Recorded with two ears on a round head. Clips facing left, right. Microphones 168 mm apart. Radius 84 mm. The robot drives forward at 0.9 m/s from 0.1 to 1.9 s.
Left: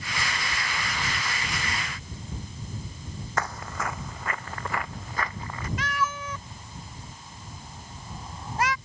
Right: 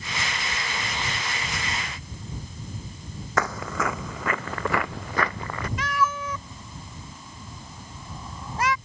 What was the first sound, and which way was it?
Footsteps, 60° right (ahead or behind).